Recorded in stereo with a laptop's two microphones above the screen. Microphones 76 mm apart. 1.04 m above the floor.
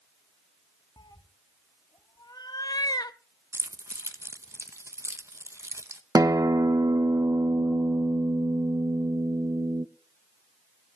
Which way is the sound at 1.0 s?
60° left (ahead or behind).